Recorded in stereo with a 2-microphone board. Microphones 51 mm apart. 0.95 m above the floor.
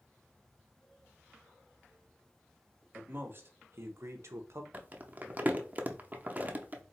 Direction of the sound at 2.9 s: 40° right (ahead or behind).